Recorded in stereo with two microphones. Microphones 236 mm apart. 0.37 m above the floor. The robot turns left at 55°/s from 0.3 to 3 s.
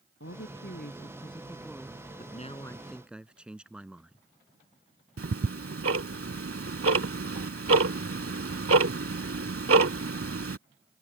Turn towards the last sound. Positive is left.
turn(degrees=-70)  # may be behind; listen again after turning